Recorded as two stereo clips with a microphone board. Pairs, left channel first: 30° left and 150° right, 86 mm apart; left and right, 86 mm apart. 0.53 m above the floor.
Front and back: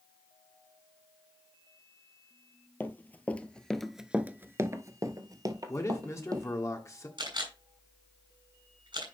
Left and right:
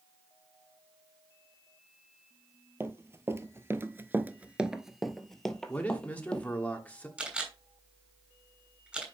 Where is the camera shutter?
165° right, 3 m.